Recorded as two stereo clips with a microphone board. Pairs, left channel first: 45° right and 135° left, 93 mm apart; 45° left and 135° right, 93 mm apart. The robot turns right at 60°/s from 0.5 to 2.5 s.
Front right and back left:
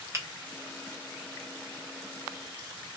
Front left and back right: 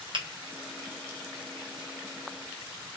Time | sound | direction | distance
0.1 | a finger snap | 165° right | 0.7 m